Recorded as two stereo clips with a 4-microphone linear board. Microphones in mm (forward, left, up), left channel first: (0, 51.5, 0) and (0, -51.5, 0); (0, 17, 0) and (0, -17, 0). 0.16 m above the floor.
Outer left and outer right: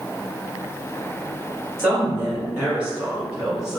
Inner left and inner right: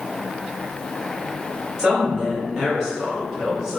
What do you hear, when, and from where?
1.8 s a woman speaking: 20° right (ahead or behind), 1.9 m; by 3.8 s 5° right (ahead or behind), 1.0 m